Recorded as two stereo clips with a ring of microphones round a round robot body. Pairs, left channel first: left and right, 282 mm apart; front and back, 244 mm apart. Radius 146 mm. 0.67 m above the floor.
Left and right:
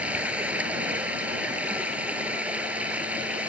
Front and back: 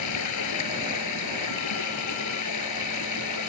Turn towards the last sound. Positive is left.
turn(degrees=-5)